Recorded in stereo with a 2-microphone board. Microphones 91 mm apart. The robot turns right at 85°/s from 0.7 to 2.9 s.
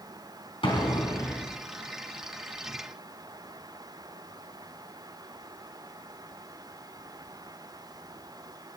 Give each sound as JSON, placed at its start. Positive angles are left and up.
{"t": 0.6, "sound": "an explosion", "azimuth_deg": 105, "distance_m": 3.0}